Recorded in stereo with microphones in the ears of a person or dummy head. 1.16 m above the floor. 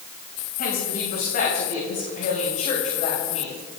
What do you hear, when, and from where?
0.6 s a woman speaking: 50° left (ahead or behind), 7.5 m; by 3.6 s 30° left (ahead or behind), 7 m